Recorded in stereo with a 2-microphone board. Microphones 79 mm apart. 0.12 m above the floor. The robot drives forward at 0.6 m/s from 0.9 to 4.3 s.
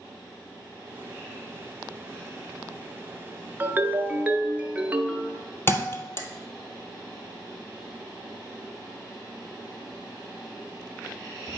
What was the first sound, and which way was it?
A ringtone, 25° right (ahead or behind).